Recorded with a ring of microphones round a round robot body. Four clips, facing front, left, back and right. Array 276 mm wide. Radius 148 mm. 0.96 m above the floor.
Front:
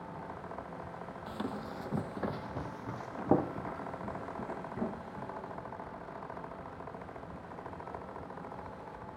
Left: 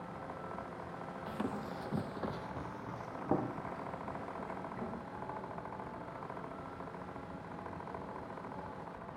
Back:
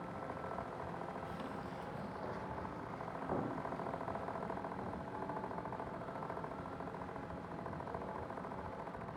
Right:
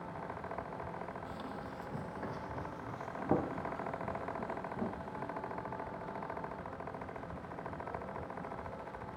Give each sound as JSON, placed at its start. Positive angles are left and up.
{"t": 1.3, "sound": "running footsteps", "azimuth_deg": 50, "distance_m": 1.7}